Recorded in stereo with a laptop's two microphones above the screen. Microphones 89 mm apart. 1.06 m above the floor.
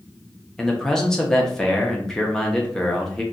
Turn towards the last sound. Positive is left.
turn(degrees=5)  # may be behind; listen again after turning